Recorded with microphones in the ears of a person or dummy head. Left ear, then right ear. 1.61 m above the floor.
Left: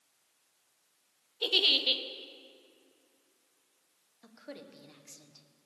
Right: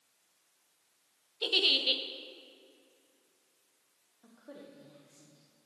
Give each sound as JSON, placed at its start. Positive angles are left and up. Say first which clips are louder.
{"t": 1.4, "sound": "a giggle", "louder": "left 1 dB", "side_deg": 5, "distance_m": 0.6}
{"t": 4.2, "sound": "a woman speaking", "louder": "left 3 dB", "side_deg": 75, "distance_m": 1.3}